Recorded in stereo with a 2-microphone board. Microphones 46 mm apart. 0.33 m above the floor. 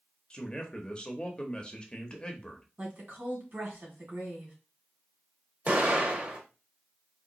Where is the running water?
I don't hear running water.